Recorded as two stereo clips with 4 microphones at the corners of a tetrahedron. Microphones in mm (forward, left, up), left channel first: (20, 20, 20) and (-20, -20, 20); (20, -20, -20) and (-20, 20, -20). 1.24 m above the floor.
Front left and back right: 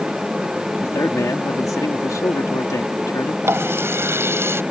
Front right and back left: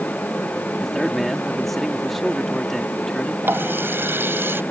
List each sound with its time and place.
0.8 s a man speaking: 45° left
3.4 s a running tap: 175° right